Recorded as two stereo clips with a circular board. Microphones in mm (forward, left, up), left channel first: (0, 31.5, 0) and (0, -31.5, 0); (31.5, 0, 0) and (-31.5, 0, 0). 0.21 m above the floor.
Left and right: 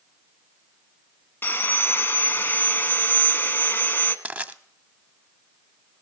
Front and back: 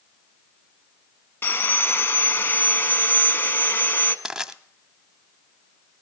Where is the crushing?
115° right, 0.5 m.